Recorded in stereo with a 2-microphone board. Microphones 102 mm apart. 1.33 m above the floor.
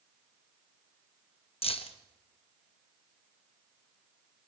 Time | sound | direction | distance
1.6 | keys jangling | 70° left (ahead or behind) | 0.8 m